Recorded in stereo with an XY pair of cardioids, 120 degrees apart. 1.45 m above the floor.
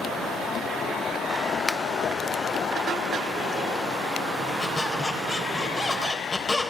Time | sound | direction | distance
1.7 | a finger snap | 15° left | 0.8 m
4.6 | a squeak | 20° left | 3.5 m